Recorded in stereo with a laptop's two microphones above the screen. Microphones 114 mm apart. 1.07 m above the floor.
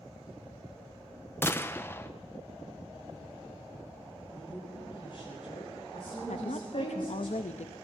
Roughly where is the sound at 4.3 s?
Left.